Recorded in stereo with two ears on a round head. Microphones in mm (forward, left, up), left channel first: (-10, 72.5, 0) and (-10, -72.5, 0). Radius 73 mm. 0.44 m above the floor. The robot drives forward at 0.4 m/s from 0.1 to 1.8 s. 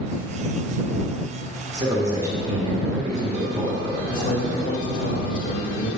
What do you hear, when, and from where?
1.7 s a man speaking: 20° right (ahead or behind), 1.4 m
4.1 s a man speaking: 55° left (ahead or behind), 1.6 m